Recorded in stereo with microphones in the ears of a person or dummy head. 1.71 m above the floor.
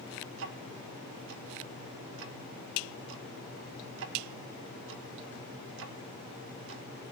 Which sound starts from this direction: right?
Ticking, at 0.3 s.